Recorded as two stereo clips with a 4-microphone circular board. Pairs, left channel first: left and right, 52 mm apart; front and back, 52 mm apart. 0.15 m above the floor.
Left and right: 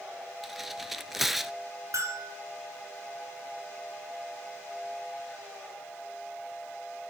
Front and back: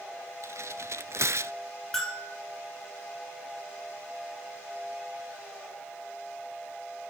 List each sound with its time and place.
0.4 s tearing paper: 175° right, 0.5 m
1.9 s a bell: 80° right, 4 m